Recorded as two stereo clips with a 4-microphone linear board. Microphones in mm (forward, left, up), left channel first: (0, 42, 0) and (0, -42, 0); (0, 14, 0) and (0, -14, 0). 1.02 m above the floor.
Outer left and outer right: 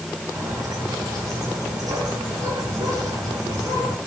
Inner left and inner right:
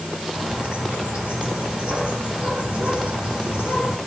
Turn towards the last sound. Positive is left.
turn(degrees=-50)  # may be behind; listen again after turning